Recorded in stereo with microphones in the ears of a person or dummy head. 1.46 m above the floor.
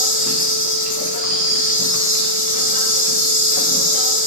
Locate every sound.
0.0 s an insect: 40° left (ahead or behind), 1.1 m